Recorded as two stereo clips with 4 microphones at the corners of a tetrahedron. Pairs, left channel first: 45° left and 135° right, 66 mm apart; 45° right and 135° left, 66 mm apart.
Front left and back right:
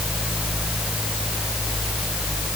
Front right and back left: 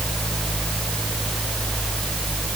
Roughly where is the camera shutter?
No camera shutter in this recording.